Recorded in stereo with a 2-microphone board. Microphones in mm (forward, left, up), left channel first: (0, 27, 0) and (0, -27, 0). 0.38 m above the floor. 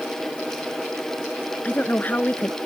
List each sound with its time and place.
1.6 s a woman speaking: 30° left (ahead or behind)